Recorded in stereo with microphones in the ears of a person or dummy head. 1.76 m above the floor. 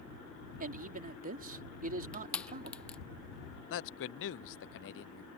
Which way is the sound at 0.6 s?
50° right (ahead or behind).